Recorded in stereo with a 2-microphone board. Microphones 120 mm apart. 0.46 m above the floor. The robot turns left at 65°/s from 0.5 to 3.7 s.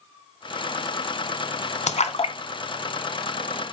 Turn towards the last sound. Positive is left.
turn(degrees=-30)  # may be behind; listen again after turning